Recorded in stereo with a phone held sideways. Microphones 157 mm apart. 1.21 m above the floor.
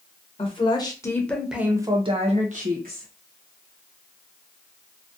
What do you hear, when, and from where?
0.4 s a woman speaking: 35° left (ahead or behind), 0.9 m; by 3.1 s 65° right (ahead or behind), 0.9 m